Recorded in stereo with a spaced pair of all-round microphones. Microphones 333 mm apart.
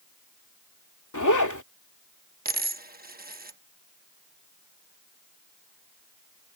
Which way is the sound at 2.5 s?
25° right (ahead or behind).